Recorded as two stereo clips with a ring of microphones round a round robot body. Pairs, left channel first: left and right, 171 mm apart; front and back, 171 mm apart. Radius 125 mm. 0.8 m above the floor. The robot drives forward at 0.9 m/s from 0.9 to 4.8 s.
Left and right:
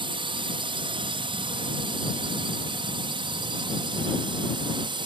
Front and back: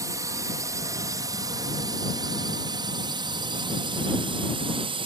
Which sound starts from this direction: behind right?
A drone, at 0.0 s.